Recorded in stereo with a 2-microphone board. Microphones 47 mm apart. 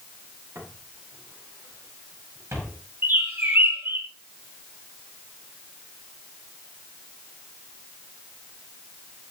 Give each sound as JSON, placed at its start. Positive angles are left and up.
{"t": 0.6, "sound": "footsteps", "side_deg": -90, "distance_m": 10.0}
{"t": 3.0, "sound": "a bird", "side_deg": -50, "distance_m": 3.0}